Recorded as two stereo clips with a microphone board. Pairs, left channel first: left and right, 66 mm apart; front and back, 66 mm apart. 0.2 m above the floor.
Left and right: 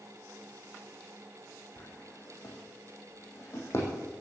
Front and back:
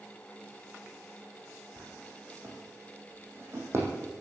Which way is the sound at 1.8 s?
135° left.